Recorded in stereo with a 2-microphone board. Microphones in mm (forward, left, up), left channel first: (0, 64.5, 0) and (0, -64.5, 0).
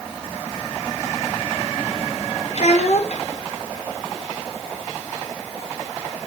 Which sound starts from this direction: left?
A child speaking, at 2.5 s.